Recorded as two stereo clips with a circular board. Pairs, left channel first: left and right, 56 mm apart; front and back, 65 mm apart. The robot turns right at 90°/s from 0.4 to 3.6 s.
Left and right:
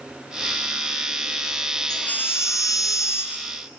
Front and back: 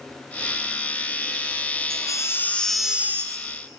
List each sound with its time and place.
1.9 s a baby crying: 15° left, 1.7 m; by 3.5 s 155° left, 1.7 m